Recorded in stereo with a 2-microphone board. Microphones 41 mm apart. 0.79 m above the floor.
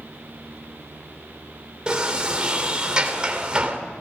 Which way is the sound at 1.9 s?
25° right (ahead or behind).